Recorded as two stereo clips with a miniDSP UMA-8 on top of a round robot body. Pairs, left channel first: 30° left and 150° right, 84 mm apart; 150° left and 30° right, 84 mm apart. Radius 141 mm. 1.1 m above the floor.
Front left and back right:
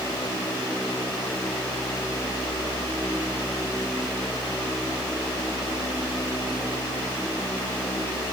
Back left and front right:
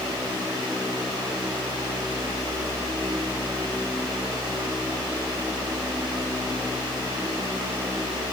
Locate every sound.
Only background noise.